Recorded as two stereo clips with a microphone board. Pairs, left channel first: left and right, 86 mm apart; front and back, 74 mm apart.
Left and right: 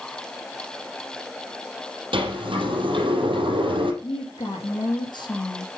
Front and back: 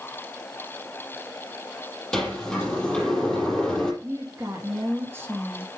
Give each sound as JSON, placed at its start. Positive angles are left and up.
{"t": 2.1, "sound": "a sliding door", "azimuth_deg": -80, "distance_m": 3.5}
{"t": 4.0, "sound": "a woman speaking", "azimuth_deg": 115, "distance_m": 3.5}